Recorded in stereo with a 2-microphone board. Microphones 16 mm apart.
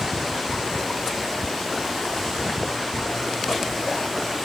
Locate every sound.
Only background noise.